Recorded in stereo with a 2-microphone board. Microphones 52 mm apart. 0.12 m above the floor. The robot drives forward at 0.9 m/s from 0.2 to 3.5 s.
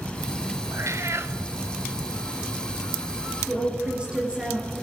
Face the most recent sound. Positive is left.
turn(degrees=-20)  # may be behind; listen again after turning